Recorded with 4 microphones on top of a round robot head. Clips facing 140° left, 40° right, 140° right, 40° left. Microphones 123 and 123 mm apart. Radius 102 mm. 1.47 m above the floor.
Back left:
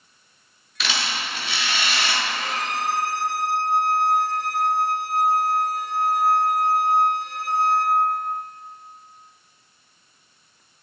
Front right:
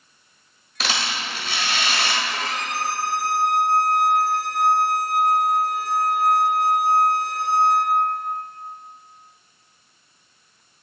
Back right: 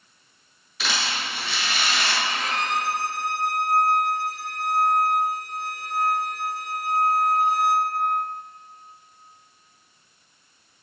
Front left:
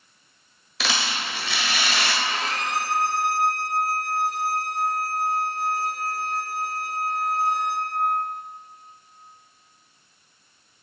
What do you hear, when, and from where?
0.8 s a rattle: 15° left, 1.3 m
2.2 s a violin: 20° right, 1.0 m